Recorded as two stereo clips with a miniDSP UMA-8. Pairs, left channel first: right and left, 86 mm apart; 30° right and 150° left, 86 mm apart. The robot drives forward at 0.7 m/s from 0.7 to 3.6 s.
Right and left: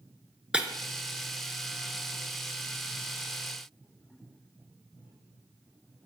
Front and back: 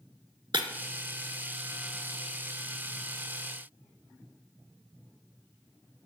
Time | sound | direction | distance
0.5 | breaking glass | 170° left | 0.6 m